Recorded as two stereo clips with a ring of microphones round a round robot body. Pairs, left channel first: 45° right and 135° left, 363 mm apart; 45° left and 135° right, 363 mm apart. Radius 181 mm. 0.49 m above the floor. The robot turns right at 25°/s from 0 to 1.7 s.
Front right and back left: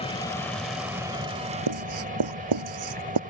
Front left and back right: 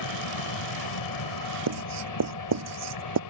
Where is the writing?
175° left.